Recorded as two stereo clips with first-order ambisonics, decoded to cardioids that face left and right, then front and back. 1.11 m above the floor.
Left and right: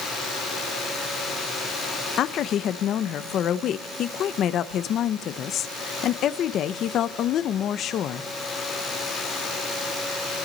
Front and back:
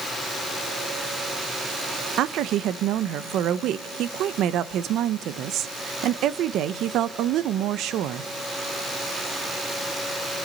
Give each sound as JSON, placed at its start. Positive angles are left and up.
{"t": 2.2, "sound": "a woman speaking", "azimuth_deg": 140, "distance_m": 0.8}